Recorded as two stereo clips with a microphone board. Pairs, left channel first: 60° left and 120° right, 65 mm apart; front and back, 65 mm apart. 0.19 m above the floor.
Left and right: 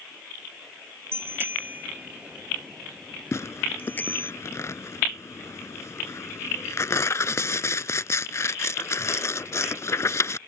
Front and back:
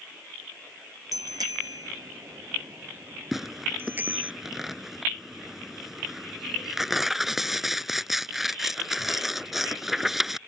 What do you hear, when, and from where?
1.1 s a bicycle bell: 170° right; by 4.3 s 115° left
3.3 s tearing paper: 95° left